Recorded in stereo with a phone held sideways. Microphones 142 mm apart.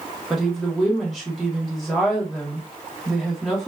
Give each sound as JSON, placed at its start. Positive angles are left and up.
{"t": 0.3, "sound": "a woman speaking", "side_deg": 0, "distance_m": 0.8}